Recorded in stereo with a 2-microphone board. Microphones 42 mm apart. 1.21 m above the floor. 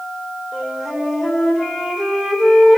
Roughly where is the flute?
Centre.